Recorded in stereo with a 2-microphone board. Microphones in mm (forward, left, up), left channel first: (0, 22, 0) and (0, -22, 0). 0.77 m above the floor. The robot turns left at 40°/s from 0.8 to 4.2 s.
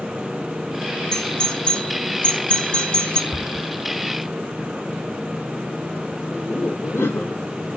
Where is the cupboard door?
55° right (ahead or behind), 2.5 m; by 3.7 s 40° right (ahead or behind), 2.5 m.